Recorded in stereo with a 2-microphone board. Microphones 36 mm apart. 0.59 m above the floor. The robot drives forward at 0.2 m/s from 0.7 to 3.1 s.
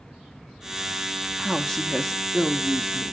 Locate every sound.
1.4 s a woman speaking: 10° left (ahead or behind), 0.6 m; by 3.1 s 5° left (ahead or behind), 0.8 m